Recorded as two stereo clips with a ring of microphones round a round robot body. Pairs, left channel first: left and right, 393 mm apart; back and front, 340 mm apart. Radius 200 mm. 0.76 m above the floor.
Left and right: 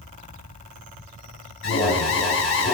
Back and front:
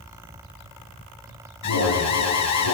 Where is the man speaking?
I don't hear a man speaking.